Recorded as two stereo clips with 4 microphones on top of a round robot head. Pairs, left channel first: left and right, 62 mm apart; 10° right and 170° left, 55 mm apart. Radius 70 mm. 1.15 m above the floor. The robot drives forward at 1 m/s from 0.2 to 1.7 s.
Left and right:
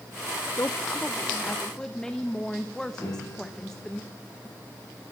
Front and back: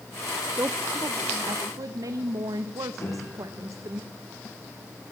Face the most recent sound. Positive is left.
turn(degrees=30)